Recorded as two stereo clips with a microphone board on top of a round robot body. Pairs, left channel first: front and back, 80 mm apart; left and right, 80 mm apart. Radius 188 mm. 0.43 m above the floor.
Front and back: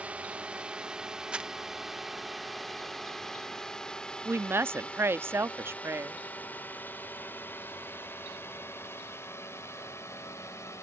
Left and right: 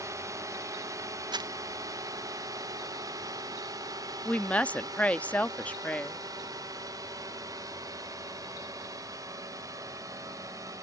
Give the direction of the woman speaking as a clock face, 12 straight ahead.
7 o'clock.